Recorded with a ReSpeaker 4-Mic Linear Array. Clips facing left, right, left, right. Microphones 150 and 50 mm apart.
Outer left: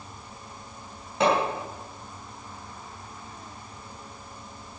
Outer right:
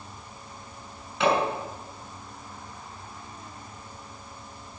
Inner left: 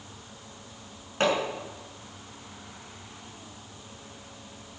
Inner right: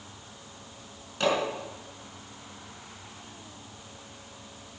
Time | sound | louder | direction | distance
1.2 | hammering | outer left 1 dB, inner left 1 dB | 45° left (ahead or behind) | 6.5 m